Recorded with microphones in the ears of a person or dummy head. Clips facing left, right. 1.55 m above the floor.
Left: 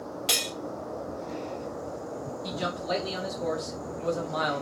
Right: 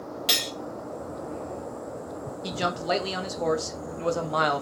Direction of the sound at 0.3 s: 10° right (ahead or behind).